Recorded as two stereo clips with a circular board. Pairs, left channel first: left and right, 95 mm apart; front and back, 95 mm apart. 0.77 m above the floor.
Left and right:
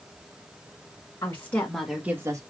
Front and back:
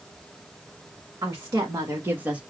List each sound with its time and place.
1.2 s a woman speaking: 135° left, 1.3 m; by 2.4 s 110° right, 1.1 m